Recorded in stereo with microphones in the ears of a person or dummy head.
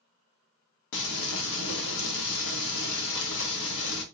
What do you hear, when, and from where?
0.9 s frying: 75° left (ahead or behind), 0.9 m